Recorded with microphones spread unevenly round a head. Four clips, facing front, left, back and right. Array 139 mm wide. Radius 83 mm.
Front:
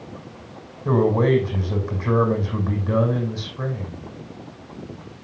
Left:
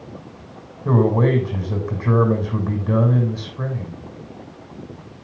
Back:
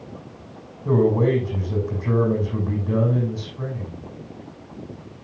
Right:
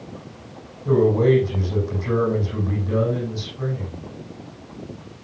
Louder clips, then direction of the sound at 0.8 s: Right 1 dB, even; 35° left.